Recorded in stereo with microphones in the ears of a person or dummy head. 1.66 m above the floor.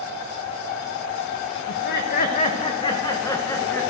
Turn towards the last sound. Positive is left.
turn(degrees=10)  # may be behind; listen again after turning